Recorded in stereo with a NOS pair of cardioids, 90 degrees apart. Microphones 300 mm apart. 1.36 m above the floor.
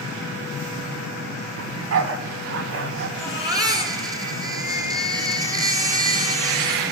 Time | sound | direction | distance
1.6 | a dog barking | 60° right | 4.5 m
3.2 | a baby crying | 15° right | 10 m